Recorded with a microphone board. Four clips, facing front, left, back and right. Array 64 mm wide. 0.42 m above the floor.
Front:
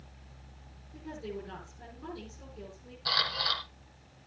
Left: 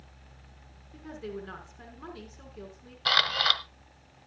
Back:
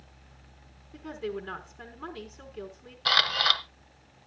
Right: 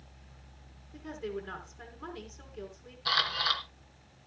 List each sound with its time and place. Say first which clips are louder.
0.9 s a woman speaking: right 1 dB, back 5 dB; 170° left, 5.5 m
3.0 s a camera shutter: left 4 dB, back 7 dB; 130° left, 1.5 m